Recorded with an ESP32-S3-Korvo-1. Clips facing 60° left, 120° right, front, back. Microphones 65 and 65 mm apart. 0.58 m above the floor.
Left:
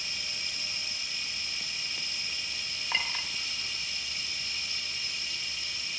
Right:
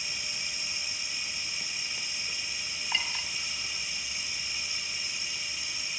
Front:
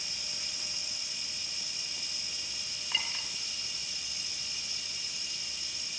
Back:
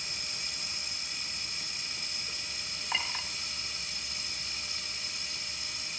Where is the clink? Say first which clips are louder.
Left 1 dB, back 3 dB; 120° left, 1.6 m.